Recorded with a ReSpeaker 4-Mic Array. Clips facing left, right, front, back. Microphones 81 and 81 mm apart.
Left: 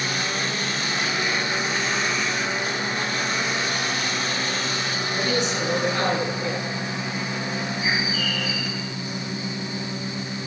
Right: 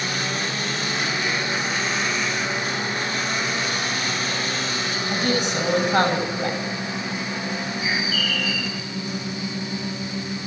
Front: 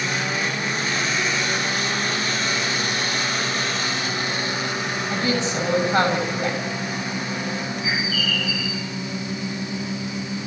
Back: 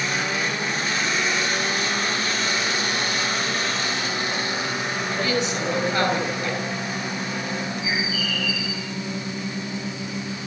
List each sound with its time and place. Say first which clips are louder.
5.1 s a woman speaking: right 2 dB, front 1 dB; 55° right, 6.5 m
7.8 s a bird: even, front 1 dB; 25° left, 7 m